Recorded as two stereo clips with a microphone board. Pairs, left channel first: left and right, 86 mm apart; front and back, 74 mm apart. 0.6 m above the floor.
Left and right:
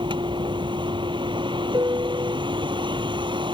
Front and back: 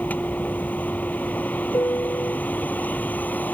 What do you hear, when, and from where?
0.0 s a vehicle: 70° right
1.7 s a piano: 45° right